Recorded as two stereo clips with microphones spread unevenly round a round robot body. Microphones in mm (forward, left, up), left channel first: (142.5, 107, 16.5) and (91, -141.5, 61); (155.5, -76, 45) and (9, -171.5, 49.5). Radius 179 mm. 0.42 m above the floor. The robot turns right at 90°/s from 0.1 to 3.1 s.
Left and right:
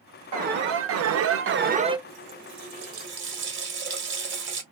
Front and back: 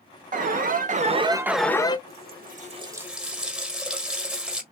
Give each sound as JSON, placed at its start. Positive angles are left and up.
{"t": 0.3, "sound": "an alarm", "azimuth_deg": -170, "distance_m": 0.6}
{"t": 2.1, "sound": "a running tap", "azimuth_deg": -155, "distance_m": 1.2}